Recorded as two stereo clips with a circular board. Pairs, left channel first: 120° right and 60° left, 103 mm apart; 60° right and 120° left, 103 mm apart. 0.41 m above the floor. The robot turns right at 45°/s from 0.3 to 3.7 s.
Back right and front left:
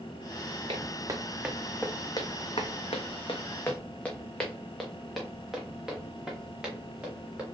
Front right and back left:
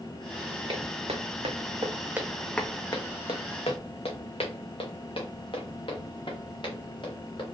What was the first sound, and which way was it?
Footsteps, 85° left.